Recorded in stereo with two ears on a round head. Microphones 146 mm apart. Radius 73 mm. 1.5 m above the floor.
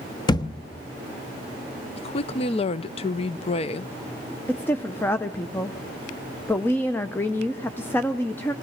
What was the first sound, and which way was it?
A thud, 25° left (ahead or behind).